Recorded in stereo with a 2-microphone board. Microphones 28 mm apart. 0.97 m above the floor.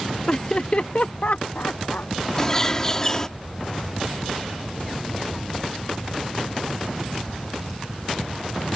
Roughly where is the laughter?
Left.